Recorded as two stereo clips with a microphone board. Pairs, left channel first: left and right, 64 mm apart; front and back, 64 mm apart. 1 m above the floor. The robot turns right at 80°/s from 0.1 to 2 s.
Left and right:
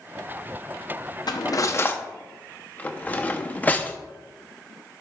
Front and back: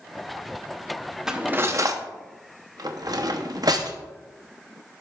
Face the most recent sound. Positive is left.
turn(degrees=155)